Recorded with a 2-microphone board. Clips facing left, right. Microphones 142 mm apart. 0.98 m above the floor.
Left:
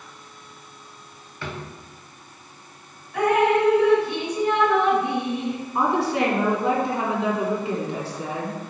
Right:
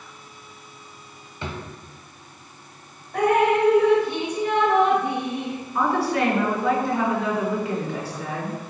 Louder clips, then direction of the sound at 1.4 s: Right 1 dB; 20° right (ahead or behind).